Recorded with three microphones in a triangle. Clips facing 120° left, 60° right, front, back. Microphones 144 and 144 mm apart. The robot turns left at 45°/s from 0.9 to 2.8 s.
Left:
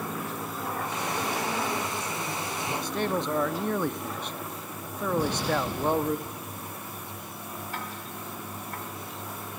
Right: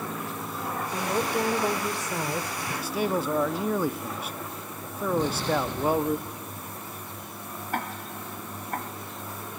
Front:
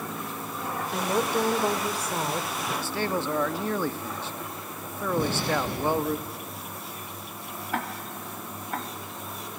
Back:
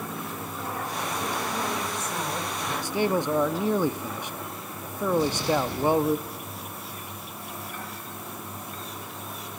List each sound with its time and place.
0.9 s a woman speaking: 10° right, 3 m; by 2.7 s 85° right, 3 m
2.8 s a man speaking: 130° right, 0.9 m
5.2 s an explosion: 40° left, 9.5 m
7.7 s ticking: 20° right, 2 m